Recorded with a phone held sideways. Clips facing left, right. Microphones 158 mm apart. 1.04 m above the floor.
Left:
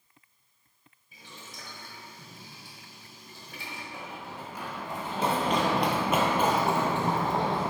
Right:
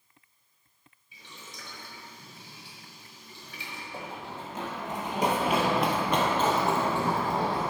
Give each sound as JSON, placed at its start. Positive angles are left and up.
{"t": 1.1, "sound": "boiling", "side_deg": 50, "distance_m": 1.7}
{"t": 3.9, "sound": "running footsteps", "side_deg": -30, "distance_m": 1.5}